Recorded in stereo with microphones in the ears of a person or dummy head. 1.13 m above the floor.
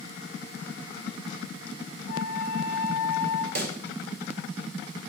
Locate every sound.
2.1 s a flute: 55° left (ahead or behind), 1.2 m
3.5 s a pop: 50° right (ahead or behind), 0.9 m